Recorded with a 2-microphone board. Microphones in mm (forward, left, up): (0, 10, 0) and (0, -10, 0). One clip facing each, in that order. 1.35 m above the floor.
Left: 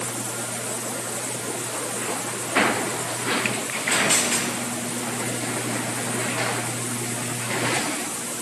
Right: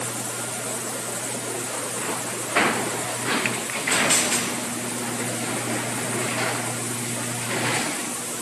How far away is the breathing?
No breathing in this recording.